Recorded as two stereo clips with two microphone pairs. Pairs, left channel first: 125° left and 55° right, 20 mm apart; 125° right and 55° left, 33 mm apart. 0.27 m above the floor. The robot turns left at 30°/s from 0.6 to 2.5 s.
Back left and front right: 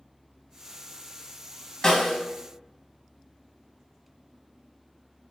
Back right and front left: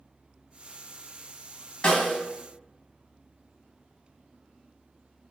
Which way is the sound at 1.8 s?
Straight behind.